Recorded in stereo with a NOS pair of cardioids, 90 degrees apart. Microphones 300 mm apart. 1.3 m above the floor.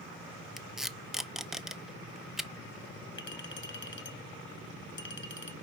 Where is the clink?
40° left, 1.1 m.